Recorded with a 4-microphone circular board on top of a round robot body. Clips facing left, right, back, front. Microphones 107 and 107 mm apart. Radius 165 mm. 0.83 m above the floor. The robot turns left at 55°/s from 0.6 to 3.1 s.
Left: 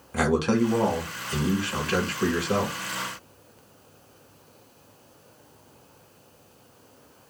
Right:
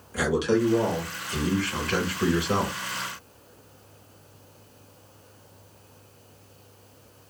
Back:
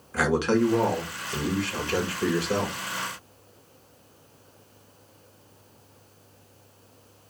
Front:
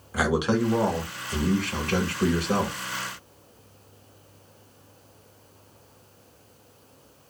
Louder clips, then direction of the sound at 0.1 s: Left 1 dB, back 1 dB; 75° left.